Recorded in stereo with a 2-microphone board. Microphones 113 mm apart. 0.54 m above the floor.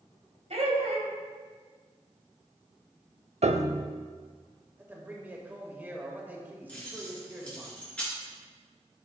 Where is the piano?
70° right (ahead or behind), 0.6 m.